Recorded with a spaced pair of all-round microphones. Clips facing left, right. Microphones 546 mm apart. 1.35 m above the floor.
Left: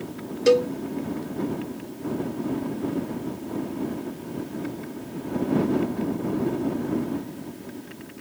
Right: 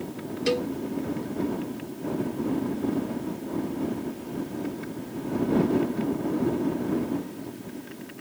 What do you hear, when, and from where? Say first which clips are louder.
0.5 s a cowbell: left 8 dB; 70° left (ahead or behind)